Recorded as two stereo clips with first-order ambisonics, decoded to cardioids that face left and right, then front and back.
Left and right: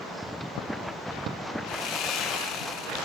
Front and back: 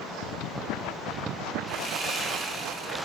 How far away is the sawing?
About 1.2 m.